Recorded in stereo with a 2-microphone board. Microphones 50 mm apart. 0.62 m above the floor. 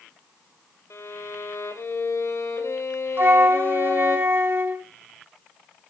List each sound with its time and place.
0.9 s a violin: 70° left (ahead or behind), 2.5 m
3.2 s a flute: 45° right (ahead or behind), 0.7 m